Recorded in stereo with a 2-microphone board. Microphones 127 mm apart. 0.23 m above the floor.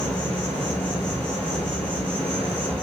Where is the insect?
50° right (ahead or behind), 1.4 m.